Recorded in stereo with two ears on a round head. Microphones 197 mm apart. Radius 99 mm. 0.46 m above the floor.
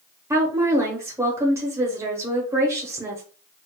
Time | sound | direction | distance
0.3 | a woman speaking | 10° right (ahead or behind) | 0.7 m